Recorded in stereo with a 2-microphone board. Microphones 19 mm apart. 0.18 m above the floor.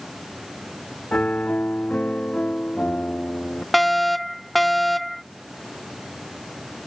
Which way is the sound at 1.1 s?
75° left (ahead or behind).